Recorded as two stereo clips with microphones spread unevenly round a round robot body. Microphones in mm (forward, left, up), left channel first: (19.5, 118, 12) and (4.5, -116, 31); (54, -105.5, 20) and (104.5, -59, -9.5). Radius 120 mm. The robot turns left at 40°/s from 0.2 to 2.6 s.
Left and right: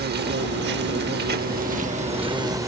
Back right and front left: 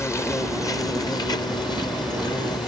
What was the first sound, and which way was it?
An insect, 75° right.